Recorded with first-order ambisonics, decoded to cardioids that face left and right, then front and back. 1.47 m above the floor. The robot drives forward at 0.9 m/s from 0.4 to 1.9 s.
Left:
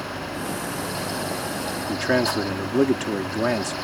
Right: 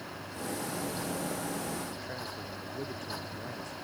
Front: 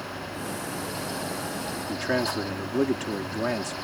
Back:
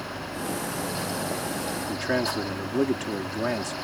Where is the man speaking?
90° left.